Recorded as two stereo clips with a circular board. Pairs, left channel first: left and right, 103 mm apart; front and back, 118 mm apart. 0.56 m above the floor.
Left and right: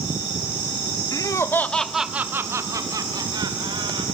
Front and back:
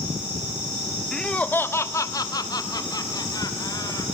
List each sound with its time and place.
1.1 s laughter: 85° left, 1.4 m; by 4.0 s 55° right, 3 m